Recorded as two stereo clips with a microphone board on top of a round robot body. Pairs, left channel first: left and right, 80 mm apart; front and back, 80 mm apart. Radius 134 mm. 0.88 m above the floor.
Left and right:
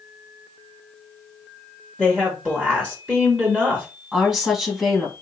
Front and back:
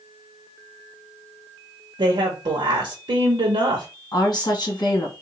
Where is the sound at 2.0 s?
165° right, 1.1 m.